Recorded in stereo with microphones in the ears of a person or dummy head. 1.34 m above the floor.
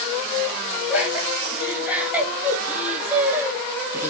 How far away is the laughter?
About 4.5 m.